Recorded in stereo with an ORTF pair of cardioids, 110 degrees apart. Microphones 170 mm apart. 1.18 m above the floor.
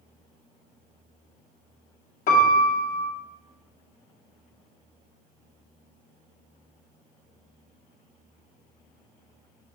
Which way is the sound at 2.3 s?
55° left.